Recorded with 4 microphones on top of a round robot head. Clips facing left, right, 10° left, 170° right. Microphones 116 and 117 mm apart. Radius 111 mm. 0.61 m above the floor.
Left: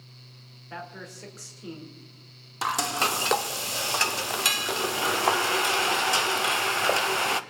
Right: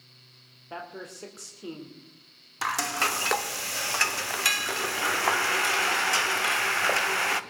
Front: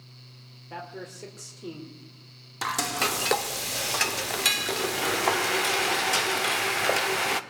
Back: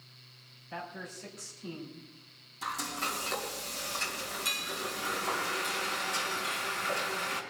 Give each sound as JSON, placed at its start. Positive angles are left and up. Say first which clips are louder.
{"t": 0.7, "sound": "a man speaking", "louder": "right 1 dB, front 3 dB", "azimuth_deg": -25, "distance_m": 2.5}
{"t": 2.6, "sound": "frying", "louder": "left 2 dB, front 8 dB", "azimuth_deg": 20, "distance_m": 0.8}